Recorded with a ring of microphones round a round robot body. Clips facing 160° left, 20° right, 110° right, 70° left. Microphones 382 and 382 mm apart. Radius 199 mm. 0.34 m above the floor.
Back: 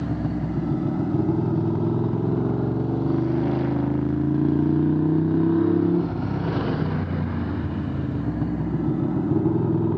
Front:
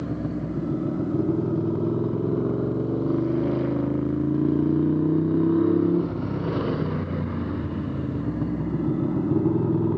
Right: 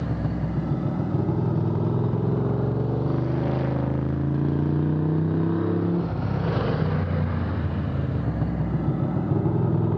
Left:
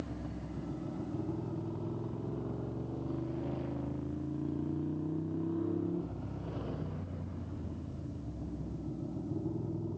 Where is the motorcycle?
130° right; by 10.0 s 115° right.